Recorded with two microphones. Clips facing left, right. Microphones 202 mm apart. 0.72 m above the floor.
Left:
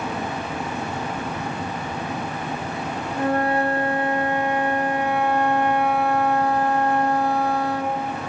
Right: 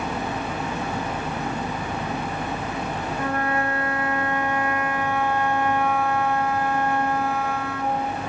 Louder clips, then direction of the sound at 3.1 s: Left 6 dB; 35° left (ahead or behind).